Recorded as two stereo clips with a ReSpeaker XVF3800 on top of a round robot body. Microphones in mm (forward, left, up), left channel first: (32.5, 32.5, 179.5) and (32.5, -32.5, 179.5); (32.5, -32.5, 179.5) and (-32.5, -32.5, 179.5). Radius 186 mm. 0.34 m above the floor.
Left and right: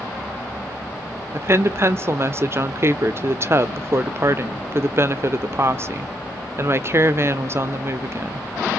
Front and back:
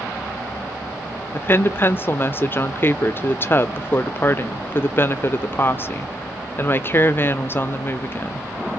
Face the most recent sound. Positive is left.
turn(degrees=-50)